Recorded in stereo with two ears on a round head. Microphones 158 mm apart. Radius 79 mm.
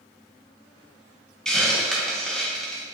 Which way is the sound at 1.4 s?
5° left (ahead or behind).